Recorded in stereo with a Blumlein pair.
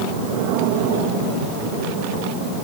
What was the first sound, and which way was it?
Only background noise.